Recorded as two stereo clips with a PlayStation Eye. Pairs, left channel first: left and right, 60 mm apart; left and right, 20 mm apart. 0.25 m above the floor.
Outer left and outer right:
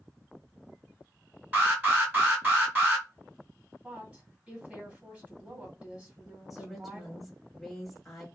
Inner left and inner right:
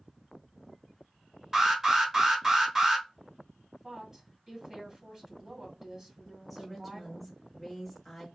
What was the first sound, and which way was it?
An alarm, 25° right (ahead or behind).